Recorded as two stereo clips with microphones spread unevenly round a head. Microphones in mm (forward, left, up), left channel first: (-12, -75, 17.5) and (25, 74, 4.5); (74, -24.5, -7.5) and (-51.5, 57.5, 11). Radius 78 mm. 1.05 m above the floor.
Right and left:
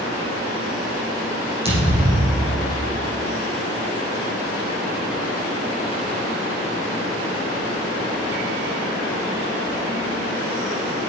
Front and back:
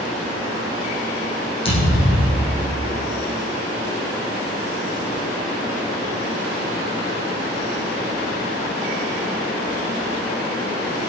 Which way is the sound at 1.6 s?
20° left.